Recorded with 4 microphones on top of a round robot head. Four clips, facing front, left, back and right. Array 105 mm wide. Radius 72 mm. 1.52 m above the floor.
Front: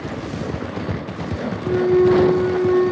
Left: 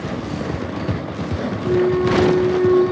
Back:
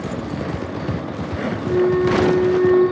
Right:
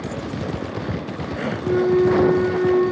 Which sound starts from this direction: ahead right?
A flute, at 1.6 s.